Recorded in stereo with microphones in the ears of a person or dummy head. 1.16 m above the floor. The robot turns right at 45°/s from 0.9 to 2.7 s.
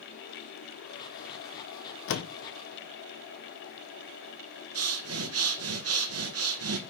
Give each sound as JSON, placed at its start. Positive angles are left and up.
{"t": 2.1, "sound": "a door slam", "side_deg": 65, "distance_m": 0.7}
{"t": 4.8, "sound": "breathing", "side_deg": -70, "distance_m": 0.9}